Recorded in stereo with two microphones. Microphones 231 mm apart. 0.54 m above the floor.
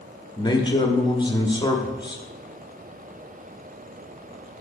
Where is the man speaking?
20° left (ahead or behind), 1.0 m.